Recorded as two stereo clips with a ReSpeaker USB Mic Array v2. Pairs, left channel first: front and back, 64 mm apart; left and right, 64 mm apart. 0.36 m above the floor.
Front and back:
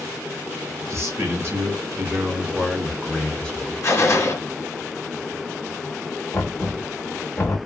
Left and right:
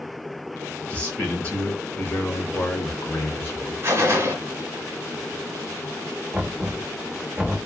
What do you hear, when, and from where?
0.9 s a man speaking: 155° left, 1.4 m; by 3.7 s 60° left, 1.1 m
3.8 s a gunshot: 40° right, 1.2 m
6.3 s knocking: 25° right, 1.0 m